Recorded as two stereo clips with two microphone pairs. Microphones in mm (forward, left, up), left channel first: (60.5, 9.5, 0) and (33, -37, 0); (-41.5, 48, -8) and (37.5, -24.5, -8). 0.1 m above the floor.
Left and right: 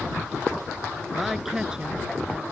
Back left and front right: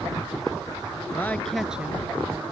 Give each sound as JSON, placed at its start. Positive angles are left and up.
{"t": 1.1, "sound": "a woman speaking", "azimuth_deg": 150}